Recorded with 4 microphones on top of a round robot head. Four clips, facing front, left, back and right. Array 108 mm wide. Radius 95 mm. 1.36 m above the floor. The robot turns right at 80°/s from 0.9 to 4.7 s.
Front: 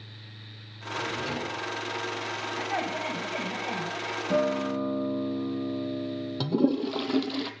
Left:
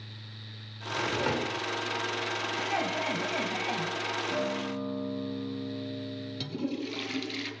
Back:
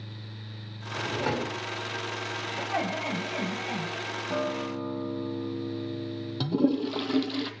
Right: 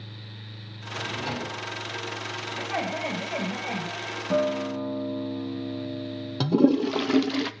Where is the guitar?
50° right, 2.5 m; by 6.6 s 20° right, 2.5 m.